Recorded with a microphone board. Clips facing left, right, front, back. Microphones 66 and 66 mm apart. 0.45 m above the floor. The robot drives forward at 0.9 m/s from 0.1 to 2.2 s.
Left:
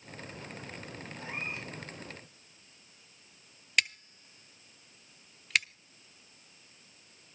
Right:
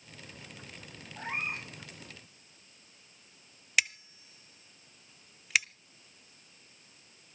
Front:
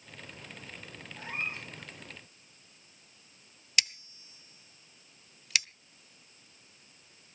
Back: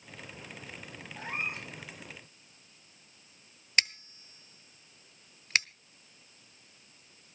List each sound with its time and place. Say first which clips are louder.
1.2 s a cat meowing: right 4 dB, back 1 dB; 135° right, 8 m
3.8 s scissors: even, back 3 dB; 175° right, 0.8 m